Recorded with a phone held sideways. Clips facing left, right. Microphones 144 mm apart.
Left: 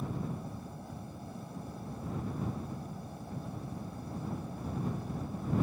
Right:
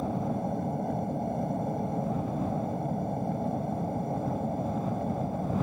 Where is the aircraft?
65° right (ahead or behind); by 5.6 s 60° right (ahead or behind).